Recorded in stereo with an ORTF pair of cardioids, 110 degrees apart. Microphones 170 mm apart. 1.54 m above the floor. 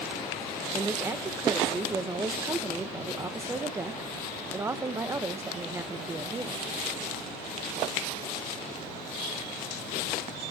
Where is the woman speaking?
15° right, 1.3 m.